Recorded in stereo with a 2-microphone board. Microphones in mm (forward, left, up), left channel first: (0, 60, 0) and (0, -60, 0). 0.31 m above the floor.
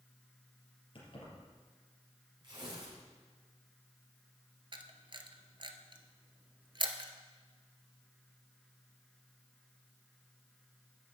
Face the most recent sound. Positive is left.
turn(degrees=-45)  # may be behind; listen again after turning